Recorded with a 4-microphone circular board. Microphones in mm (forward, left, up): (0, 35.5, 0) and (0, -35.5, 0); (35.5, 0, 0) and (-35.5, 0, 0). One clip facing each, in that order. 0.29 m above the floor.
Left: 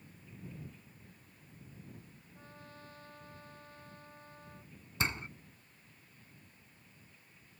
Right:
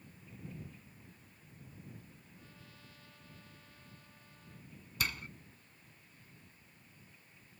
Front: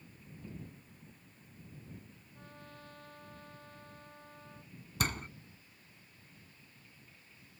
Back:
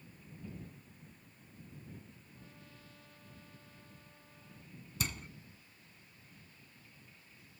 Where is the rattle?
No rattle in this recording.